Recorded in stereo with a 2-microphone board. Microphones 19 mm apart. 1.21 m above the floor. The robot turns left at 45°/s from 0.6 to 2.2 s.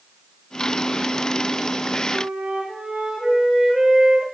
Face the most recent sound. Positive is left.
turn(degrees=-85)